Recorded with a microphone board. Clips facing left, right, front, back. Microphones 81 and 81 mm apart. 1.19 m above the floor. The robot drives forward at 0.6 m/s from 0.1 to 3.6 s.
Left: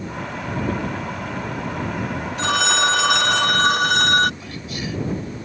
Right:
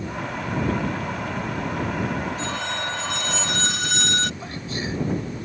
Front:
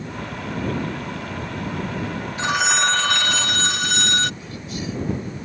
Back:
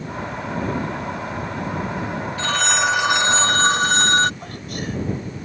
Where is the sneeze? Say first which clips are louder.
Even, back 1 dB; 150° right.